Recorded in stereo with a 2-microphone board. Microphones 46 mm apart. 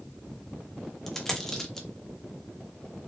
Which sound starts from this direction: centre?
A dropped coin, at 1.1 s.